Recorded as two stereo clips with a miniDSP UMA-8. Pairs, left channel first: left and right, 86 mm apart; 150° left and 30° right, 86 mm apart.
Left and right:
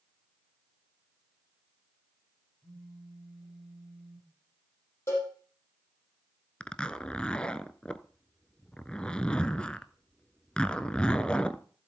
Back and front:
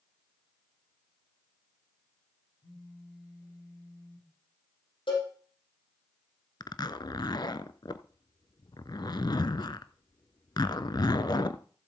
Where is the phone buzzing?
Straight behind, 6 m.